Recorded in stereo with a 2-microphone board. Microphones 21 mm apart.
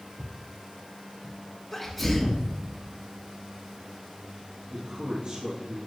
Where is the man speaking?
50° right (ahead or behind), 2.5 m.